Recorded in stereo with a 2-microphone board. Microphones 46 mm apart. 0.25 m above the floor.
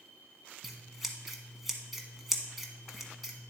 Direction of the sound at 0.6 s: 5° right (ahead or behind).